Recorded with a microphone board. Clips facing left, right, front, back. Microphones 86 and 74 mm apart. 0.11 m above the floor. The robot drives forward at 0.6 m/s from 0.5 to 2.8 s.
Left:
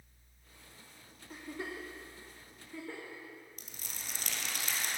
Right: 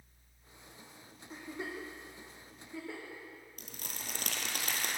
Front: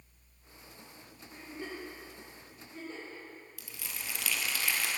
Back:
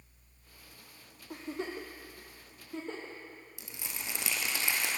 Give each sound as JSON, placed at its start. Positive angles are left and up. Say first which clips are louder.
{"t": 1.3, "sound": "a giggle", "louder": "even, back 5 dB", "azimuth_deg": 180, "distance_m": 0.9}
{"t": 3.6, "sound": "crumpling", "louder": "right 3 dB, back 1 dB", "azimuth_deg": -115, "distance_m": 0.9}